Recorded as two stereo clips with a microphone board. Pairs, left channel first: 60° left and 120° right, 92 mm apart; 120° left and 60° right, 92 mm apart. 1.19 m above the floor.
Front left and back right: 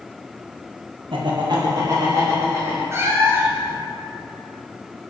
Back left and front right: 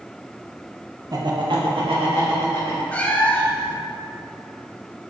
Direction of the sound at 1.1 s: 105° right.